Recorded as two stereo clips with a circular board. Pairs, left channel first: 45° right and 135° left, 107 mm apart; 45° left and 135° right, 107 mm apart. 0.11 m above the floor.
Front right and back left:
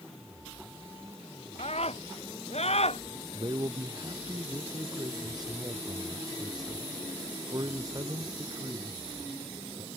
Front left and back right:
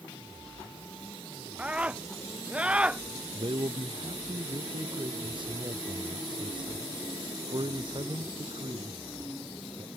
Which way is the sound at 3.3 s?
175° right.